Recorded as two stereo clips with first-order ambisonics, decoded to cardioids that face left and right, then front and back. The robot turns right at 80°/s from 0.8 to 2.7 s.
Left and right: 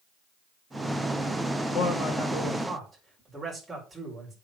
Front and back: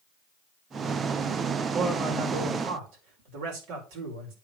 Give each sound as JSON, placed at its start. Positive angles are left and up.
{"t": 1.7, "sound": "a man speaking", "azimuth_deg": 110, "distance_m": 5.0}